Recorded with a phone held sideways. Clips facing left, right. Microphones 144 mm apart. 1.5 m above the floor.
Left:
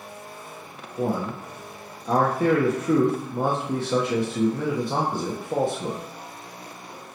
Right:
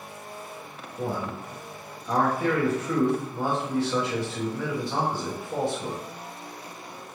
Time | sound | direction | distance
1.0 | a man speaking | 50° left (ahead or behind) | 1.3 m